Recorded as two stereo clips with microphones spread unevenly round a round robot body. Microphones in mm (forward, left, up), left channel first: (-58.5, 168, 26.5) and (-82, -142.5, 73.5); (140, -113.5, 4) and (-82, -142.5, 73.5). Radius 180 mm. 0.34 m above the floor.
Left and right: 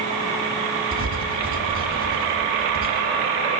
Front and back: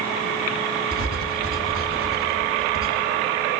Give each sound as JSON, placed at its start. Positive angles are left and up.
{"t": 0.9, "sound": "writing", "azimuth_deg": -145, "distance_m": 2.5}